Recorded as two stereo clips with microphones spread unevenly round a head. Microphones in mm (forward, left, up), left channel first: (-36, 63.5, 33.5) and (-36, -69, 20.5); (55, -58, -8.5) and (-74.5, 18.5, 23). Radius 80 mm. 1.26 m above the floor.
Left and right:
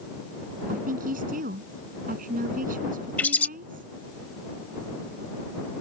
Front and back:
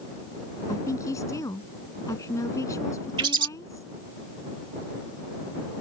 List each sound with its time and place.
0.7 s a woman speaking: 100° right
3.2 s a bird: 155° left